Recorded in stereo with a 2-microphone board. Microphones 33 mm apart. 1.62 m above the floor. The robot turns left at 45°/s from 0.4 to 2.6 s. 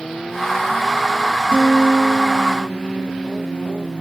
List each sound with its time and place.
1.5 s a guitar: 160° left, 2.5 m; by 4.0 s 110° left, 2.5 m